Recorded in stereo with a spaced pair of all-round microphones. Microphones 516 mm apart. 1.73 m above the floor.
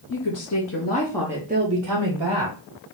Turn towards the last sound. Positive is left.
turn(degrees=-55)  # may be behind; listen again after turning